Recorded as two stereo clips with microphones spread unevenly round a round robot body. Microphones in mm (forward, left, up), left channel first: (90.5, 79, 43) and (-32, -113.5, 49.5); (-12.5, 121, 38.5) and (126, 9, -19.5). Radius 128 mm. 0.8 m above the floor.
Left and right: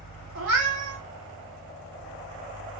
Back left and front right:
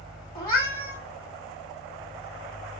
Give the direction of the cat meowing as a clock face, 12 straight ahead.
5 o'clock.